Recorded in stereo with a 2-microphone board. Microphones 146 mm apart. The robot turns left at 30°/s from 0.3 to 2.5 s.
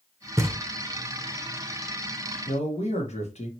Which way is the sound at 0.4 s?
20° right (ahead or behind).